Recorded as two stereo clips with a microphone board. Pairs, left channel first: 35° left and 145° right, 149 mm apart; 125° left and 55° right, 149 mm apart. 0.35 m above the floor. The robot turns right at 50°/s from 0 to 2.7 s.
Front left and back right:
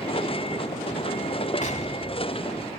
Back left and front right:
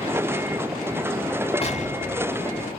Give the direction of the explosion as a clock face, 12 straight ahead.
10 o'clock.